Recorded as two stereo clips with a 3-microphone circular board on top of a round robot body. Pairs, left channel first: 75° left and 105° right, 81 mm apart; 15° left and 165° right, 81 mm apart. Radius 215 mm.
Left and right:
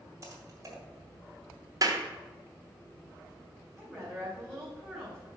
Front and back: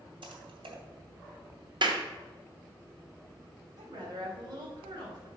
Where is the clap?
150° right, 1.4 m.